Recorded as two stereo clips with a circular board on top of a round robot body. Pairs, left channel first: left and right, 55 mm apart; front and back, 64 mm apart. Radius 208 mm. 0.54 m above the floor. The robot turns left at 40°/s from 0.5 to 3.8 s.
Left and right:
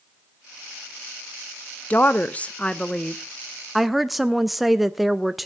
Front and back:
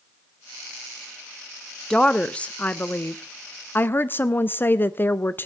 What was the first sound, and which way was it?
A woman speaking, 70° left.